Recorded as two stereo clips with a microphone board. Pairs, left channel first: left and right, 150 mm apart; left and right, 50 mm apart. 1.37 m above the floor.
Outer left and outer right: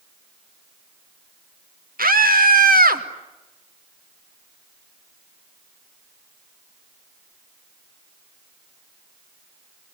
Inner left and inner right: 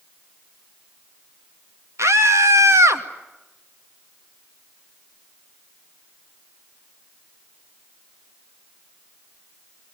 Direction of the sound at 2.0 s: 70° right (ahead or behind).